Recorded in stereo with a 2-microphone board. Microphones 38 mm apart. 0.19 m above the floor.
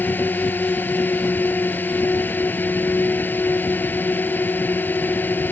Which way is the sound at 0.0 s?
60° left (ahead or behind).